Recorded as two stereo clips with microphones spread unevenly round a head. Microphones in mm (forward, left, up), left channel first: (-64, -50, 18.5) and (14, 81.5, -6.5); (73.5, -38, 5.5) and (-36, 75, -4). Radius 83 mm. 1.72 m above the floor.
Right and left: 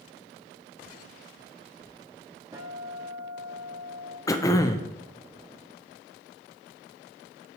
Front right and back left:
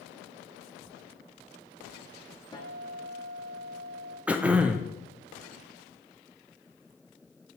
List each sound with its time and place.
2.5 s a guitar: 10° right, 1.3 m
4.3 s throat clearing: 145° right, 0.5 m